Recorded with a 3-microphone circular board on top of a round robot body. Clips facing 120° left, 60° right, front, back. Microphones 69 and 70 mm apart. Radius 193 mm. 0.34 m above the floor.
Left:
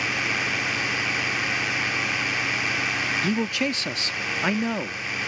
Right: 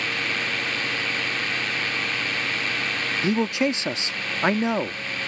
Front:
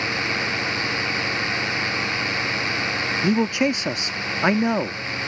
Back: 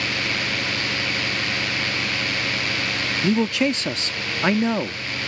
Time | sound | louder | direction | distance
0.0 | a drone | left 1 dB, front 1 dB | 45° left | ?
3.2 | a man speaking | right 6 dB, even | 45° right | ?